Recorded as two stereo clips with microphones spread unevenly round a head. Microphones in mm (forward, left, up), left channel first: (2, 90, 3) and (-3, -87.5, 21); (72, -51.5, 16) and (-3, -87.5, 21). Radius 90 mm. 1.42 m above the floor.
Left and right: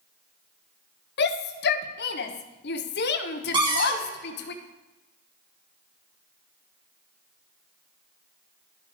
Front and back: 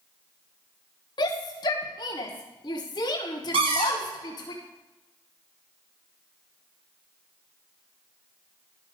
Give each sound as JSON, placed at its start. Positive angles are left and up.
{"t": 1.2, "sound": "a shout", "azimuth_deg": 70, "distance_m": 1.1}
{"t": 3.5, "sound": "a cupboard door", "azimuth_deg": -160, "distance_m": 2.5}